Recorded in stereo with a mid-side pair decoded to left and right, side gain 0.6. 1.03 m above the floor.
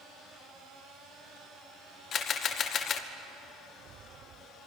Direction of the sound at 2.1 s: 50° left.